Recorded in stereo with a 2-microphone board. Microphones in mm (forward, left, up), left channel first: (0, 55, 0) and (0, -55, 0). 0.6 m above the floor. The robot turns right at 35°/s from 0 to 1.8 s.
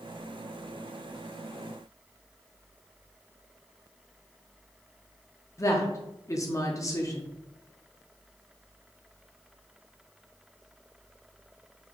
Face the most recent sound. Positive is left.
turn(degrees=30)  # may be behind; listen again after turning